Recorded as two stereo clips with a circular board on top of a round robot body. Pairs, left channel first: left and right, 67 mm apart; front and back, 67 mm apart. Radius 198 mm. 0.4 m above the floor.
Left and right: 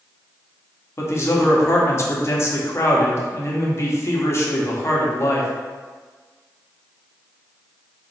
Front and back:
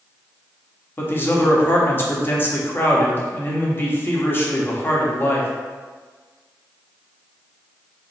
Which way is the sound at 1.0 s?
50° left.